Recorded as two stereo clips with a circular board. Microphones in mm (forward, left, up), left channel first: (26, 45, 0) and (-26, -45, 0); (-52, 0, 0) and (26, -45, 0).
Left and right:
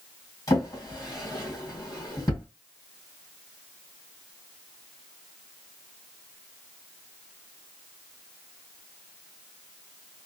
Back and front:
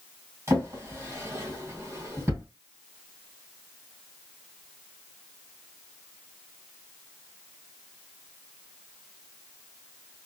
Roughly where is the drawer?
Ahead.